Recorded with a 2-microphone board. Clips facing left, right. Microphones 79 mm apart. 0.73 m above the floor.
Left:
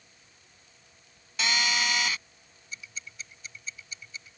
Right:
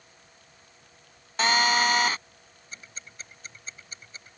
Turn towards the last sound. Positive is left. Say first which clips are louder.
# left 2 dB
turn(degrees=-40)  # may be behind; listen again after turning